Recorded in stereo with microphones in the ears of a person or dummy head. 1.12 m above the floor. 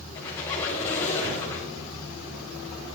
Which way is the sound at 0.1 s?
15° left (ahead or behind).